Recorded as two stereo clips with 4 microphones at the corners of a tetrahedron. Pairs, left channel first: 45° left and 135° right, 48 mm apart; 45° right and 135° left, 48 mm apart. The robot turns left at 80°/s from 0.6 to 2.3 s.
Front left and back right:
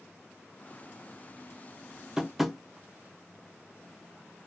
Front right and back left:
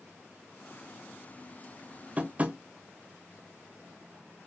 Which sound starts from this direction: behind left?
Tapping, at 2.2 s.